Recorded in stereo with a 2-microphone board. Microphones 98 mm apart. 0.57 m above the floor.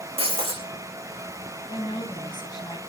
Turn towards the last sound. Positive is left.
turn(degrees=50)  # may be behind; listen again after turning